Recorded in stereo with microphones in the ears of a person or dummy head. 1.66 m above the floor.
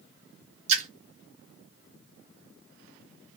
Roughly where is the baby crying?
I don't hear a baby crying.